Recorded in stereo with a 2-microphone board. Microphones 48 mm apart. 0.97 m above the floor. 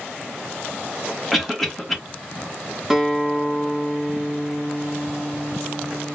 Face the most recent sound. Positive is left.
turn(degrees=-5)  # may be behind; listen again after turning